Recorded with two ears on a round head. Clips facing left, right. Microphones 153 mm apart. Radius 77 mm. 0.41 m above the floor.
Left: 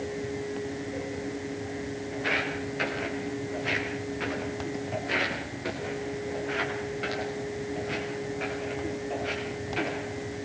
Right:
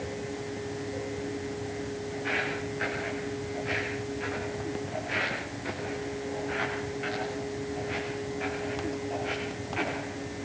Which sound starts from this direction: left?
Footsteps, at 2.1 s.